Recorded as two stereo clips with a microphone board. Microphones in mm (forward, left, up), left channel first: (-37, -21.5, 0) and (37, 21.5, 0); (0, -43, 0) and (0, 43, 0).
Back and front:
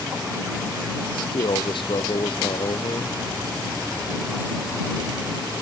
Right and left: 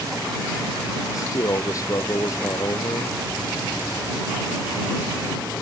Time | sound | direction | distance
1.1 | a man speaking | 140° right | ?